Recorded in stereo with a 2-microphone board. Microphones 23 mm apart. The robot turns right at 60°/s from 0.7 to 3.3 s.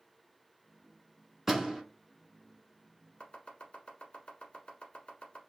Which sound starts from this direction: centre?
A door slam, at 1.5 s.